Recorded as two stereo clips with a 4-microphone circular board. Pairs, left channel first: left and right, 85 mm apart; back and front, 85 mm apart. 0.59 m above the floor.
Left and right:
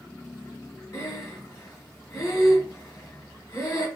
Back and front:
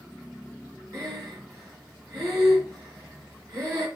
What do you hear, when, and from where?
0.9 s breathing: 45° left, 1.5 m